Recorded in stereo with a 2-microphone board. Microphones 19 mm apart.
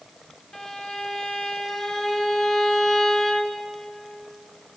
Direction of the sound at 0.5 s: 40° left (ahead or behind).